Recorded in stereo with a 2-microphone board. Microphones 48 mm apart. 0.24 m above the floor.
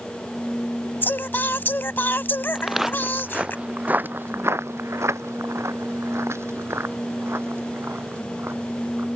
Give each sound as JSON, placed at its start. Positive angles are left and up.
{"t": 1.0, "sound": "singing", "side_deg": 45}
{"t": 2.5, "sound": "footsteps", "side_deg": -5}